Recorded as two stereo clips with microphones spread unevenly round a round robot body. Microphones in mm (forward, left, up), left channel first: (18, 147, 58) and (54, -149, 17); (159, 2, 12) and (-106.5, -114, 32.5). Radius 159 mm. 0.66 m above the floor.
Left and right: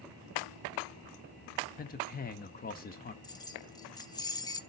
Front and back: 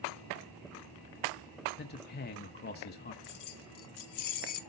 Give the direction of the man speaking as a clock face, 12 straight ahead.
11 o'clock.